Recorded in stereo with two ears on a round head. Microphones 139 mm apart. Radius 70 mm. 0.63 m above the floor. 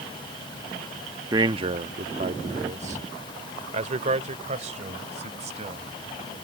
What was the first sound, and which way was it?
A man speaking, 25° right (ahead or behind).